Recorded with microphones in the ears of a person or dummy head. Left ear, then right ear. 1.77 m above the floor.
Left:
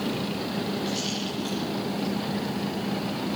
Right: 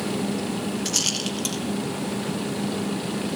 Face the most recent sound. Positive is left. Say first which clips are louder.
# right 5 dB
turn(degrees=-70)  # may be behind; listen again after turning